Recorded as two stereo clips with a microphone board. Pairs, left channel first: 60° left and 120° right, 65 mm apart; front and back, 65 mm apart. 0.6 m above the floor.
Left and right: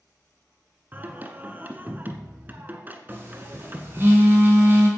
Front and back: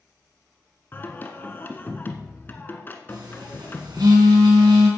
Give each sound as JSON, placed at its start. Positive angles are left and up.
{"t": 0.9, "sound": "singing", "azimuth_deg": -60, "distance_m": 1.3}
{"t": 3.1, "sound": "a phone buzzing", "azimuth_deg": -175, "distance_m": 3.5}